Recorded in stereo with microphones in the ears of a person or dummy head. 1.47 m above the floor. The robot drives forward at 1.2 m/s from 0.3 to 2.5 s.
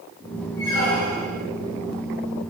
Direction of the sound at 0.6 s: 70° left (ahead or behind).